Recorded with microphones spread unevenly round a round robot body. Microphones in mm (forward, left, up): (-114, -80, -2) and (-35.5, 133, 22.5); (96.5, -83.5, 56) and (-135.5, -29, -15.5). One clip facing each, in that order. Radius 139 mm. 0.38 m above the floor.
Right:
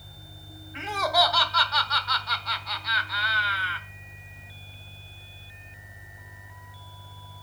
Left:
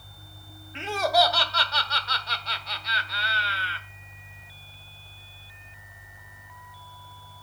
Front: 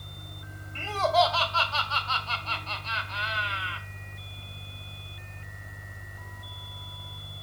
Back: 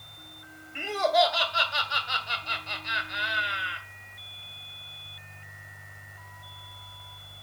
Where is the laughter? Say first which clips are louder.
Left 3 dB, back 1 dB; 125° left, 1.2 m.